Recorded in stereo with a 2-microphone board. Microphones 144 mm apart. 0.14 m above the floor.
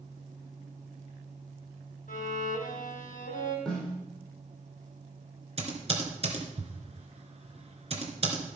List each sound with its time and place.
2.1 s a violin: 75° left (ahead or behind), 3 m
3.6 s a snare drum: 5° left (ahead or behind), 5 m
5.6 s typing on a keyboard: 45° right (ahead or behind), 2.5 m